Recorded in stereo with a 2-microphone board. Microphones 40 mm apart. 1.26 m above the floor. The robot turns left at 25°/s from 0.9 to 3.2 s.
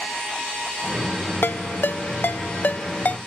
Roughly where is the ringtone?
Left.